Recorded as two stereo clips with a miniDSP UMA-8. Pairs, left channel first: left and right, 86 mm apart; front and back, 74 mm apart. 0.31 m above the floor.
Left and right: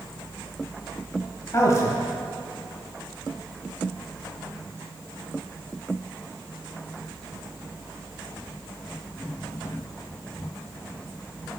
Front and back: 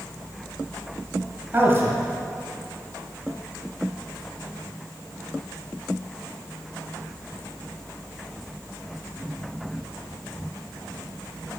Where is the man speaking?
130° left, 1.3 m.